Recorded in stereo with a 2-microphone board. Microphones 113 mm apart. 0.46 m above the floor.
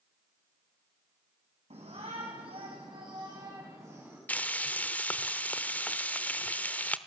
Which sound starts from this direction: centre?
Frying, at 4.3 s.